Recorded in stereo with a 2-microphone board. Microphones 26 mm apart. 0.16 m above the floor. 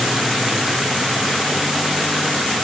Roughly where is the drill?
I don't hear a drill.